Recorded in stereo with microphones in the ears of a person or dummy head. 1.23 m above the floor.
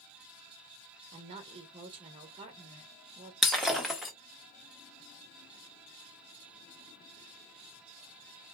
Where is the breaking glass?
Centre (ahead or behind), 1.0 m.